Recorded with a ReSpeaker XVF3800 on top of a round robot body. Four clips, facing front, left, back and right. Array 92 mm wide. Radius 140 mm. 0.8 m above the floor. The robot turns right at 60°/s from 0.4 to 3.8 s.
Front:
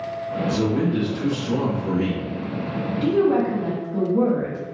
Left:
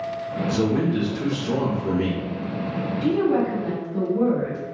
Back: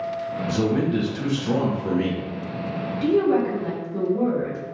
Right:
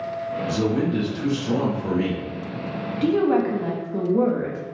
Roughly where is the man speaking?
Behind left.